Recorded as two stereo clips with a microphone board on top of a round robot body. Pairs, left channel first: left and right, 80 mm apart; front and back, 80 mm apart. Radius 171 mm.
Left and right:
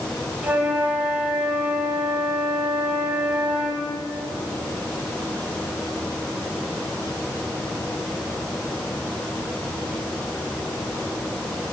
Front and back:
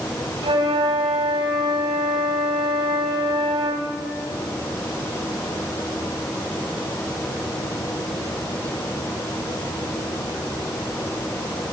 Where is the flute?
165° right, 2 m.